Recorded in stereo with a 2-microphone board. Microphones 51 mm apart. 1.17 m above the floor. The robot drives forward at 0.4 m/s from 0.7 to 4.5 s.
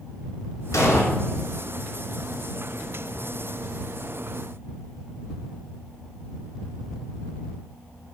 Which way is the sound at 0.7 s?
80° left.